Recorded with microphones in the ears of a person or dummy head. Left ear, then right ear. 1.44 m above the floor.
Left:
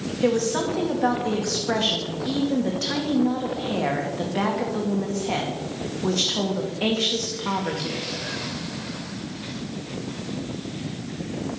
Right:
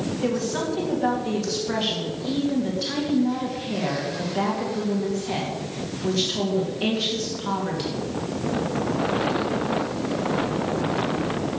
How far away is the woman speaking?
About 2.5 m.